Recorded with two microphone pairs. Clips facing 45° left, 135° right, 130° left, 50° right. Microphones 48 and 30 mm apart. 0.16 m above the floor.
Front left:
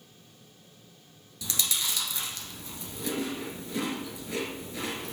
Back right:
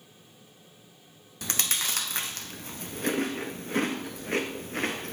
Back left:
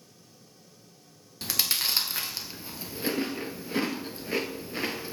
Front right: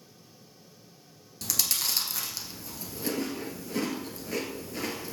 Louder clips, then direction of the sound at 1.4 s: Back right 1 dB, back left 3 dB; 170° right.